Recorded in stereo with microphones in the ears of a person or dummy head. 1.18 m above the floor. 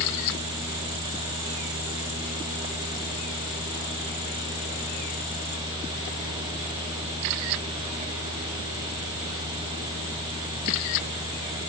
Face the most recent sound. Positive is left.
turn(degrees=-20)  # may be behind; listen again after turning